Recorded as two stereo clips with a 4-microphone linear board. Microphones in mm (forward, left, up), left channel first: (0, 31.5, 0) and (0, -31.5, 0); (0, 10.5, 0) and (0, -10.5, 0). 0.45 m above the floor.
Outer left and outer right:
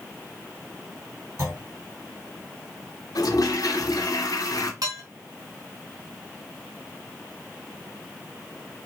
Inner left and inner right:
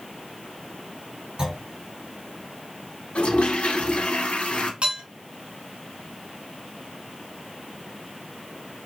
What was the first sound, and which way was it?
A clunk, 50° right (ahead or behind).